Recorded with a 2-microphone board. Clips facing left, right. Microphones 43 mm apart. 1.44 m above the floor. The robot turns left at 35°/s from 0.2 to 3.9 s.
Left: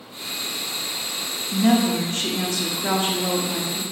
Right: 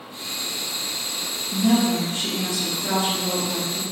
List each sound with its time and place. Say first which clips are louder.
1.5 s a woman speaking: left 1 dB; 105° left, 0.9 m; by 3.8 s 25° left, 0.9 m